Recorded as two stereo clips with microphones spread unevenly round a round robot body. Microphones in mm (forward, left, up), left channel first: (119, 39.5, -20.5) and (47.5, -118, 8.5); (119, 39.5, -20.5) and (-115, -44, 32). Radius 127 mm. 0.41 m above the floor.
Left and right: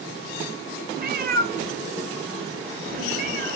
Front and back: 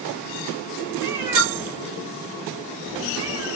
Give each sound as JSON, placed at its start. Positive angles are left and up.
{"t": 1.0, "sound": "a cat meowing", "azimuth_deg": -75, "distance_m": 0.7}